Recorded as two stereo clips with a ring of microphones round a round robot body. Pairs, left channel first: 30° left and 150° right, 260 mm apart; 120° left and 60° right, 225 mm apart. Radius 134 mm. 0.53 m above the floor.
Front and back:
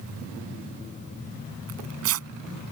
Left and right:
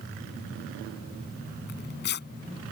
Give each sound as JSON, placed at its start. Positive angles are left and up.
{"t": 1.7, "sound": "tearing paper", "azimuth_deg": 170}